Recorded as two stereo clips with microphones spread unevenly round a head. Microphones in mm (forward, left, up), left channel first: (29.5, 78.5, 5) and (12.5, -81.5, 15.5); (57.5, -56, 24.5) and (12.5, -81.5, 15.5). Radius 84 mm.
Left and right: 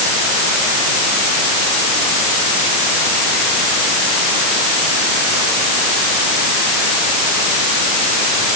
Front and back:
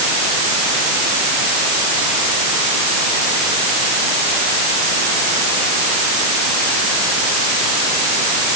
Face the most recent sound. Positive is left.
No sound to turn to.